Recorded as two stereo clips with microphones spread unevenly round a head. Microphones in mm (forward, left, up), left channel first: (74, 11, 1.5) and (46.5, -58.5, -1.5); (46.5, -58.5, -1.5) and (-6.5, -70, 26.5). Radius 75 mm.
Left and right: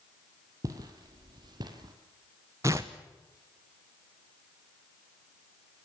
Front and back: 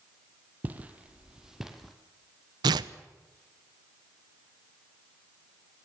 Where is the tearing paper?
Straight behind, 0.7 m.